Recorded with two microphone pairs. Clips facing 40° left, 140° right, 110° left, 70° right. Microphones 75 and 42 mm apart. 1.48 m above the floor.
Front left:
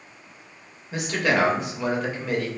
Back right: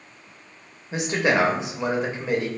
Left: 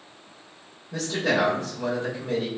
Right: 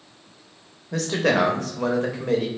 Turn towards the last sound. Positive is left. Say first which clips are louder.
# back right 1 dB, right 3 dB
turn(degrees=-75)